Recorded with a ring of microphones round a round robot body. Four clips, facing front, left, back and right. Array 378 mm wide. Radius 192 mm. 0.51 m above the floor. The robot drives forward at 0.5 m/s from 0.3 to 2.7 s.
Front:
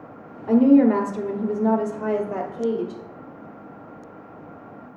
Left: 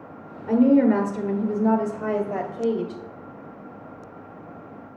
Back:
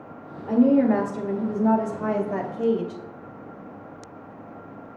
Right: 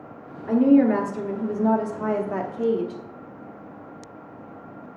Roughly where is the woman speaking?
Ahead right.